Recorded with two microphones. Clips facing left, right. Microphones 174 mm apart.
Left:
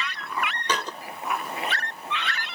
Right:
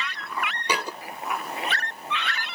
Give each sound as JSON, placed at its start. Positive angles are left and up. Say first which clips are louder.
{"t": 0.7, "sound": "a thud", "louder": "right 2 dB", "side_deg": -10}